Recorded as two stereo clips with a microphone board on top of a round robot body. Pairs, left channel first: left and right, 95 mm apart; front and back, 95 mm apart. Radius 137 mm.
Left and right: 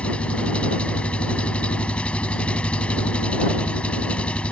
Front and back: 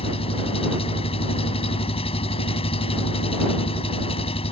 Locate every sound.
0.0 s an engine running: 10° left